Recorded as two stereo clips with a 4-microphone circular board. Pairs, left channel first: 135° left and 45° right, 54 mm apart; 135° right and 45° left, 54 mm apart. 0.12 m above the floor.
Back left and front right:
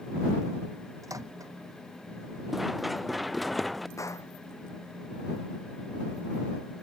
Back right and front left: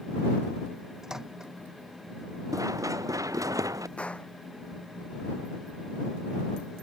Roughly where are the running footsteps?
Ahead left.